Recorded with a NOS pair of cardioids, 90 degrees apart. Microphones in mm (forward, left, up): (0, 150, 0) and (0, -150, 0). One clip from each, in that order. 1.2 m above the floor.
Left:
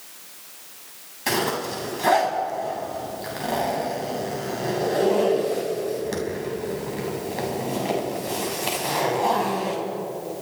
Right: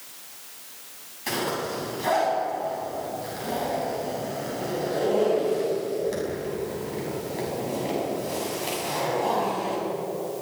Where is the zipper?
45° left, 6.5 m.